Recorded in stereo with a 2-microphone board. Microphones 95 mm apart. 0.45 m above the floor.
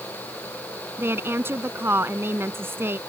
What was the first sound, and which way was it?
A woman speaking, 25° right (ahead or behind).